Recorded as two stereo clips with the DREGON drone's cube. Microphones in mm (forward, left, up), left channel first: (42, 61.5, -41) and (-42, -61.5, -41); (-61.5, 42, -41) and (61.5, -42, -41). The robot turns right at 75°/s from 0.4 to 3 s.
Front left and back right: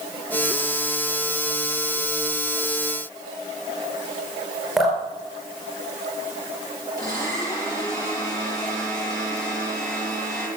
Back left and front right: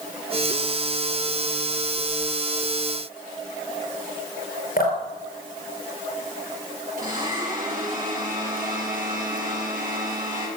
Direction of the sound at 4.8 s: 145° left.